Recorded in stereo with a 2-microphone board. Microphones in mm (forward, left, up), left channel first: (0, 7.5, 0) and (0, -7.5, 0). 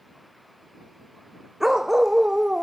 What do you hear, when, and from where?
1.6 s a dog barking: 20° right (ahead or behind); by 2.6 s 45° right (ahead or behind)